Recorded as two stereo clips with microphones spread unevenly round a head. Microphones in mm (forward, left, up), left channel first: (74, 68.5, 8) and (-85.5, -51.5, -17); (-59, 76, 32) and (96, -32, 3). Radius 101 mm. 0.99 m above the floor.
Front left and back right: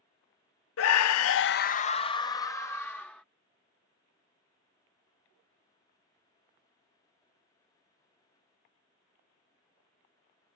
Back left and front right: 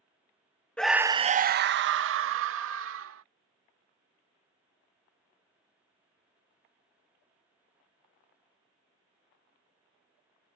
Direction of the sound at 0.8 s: 60° left.